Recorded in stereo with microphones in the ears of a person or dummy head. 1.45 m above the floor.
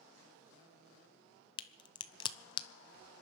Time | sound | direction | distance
1.6 | a crack | 30° left (ahead or behind) | 0.7 m